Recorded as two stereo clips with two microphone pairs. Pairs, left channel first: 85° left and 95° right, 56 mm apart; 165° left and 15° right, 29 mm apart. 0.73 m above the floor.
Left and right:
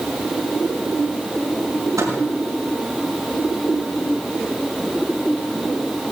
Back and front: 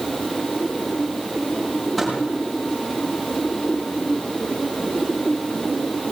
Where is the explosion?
I don't hear an explosion.